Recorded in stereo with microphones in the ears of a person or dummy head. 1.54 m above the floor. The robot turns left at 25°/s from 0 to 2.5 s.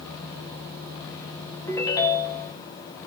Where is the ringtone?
15° left (ahead or behind), 0.8 m; by 2.5 s 35° left (ahead or behind), 0.8 m.